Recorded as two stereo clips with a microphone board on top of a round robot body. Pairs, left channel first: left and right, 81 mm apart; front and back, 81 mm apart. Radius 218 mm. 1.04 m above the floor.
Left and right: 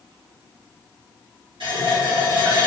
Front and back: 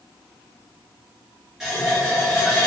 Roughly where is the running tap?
Right.